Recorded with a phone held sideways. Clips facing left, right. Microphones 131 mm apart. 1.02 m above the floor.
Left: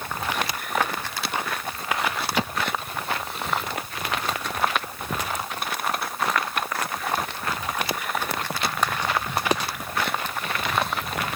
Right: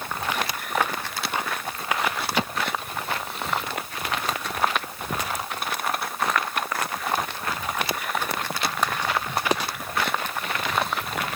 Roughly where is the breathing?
I don't hear breathing.